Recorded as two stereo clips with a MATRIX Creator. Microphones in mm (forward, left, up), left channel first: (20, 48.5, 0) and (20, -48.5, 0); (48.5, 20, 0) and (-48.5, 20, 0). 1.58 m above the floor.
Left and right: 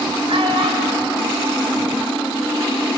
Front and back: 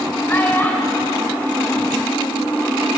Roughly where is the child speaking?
Right.